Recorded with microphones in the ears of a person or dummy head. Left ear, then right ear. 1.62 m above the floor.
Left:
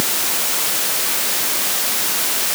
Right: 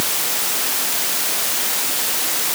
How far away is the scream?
No scream in this recording.